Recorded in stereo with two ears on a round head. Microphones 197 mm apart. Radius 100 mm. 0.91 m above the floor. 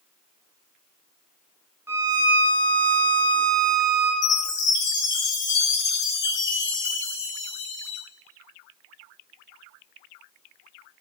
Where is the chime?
55° left (ahead or behind), 0.9 m.